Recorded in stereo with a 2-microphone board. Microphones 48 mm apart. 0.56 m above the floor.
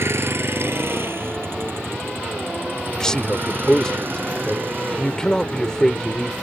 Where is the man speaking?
15° left (ahead or behind).